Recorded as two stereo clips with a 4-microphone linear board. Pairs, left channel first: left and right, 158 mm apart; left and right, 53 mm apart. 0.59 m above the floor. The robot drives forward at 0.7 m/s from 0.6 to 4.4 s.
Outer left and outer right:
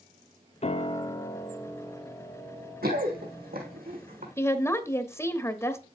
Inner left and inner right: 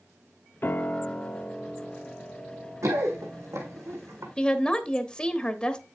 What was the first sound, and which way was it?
A piano, 40° left (ahead or behind).